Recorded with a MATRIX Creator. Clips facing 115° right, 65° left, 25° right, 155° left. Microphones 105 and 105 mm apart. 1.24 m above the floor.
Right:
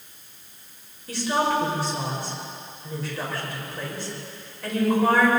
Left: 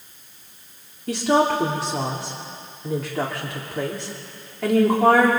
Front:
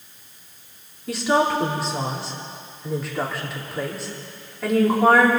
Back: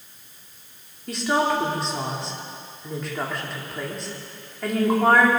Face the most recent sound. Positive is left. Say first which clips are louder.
# left 5 dB, front 2 dB
turn(degrees=65)